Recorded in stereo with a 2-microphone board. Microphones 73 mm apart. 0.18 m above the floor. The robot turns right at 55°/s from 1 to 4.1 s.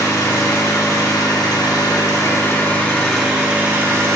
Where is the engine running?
60° left, 2.5 m; by 4.2 s 130° right, 2.5 m.